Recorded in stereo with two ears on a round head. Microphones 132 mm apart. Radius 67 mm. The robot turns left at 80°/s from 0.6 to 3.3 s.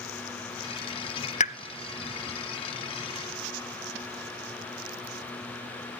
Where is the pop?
50° left (ahead or behind), 0.6 m; by 1.6 s 55° left (ahead or behind), 0.6 m.